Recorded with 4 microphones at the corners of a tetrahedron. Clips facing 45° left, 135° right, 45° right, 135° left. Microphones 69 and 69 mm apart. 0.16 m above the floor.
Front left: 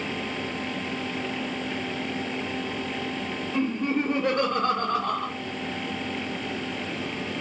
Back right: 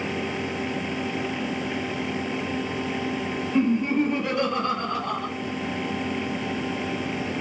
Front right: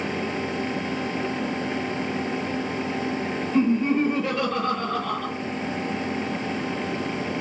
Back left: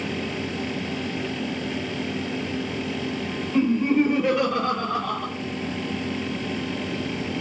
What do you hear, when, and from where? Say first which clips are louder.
3.5 s laughter: back right 4 dB, back left 1 dB; 70° left, 2.5 m; by 5.3 s 50° left, 1.7 m